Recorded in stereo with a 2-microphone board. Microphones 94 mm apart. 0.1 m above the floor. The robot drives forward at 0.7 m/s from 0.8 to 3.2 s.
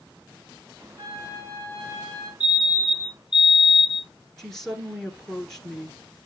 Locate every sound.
1.0 s a flute: 30° left (ahead or behind), 3 m; by 2.3 s 25° left (ahead or behind), 3.5 m
2.4 s a fire alarm: 10° right (ahead or behind), 3 m
4.4 s a woman speaking: 5° left (ahead or behind), 1.3 m